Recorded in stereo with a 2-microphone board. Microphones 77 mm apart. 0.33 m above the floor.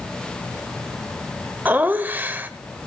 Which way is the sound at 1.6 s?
25° right (ahead or behind).